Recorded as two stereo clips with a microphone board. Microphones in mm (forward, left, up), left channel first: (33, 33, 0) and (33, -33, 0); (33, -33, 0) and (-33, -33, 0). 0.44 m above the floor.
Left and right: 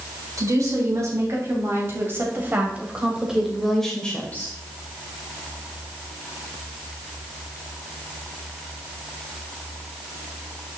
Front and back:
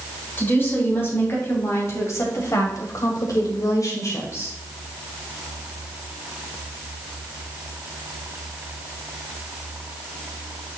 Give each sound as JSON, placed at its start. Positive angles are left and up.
{"t": 0.4, "sound": "a woman speaking", "azimuth_deg": -55, "distance_m": 4.0}